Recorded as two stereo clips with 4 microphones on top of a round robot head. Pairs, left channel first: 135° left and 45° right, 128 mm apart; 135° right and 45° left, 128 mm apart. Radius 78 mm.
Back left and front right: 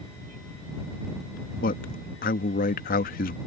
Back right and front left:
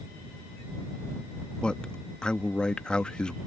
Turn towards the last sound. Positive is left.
turn(degrees=140)